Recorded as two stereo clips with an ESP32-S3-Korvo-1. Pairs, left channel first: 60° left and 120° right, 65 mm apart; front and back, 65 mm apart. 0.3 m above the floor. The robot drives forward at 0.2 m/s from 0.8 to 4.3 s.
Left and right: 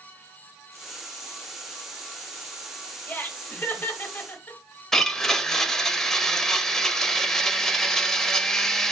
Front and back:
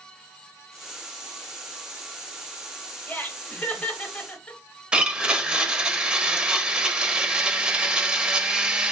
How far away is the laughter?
About 1.7 m.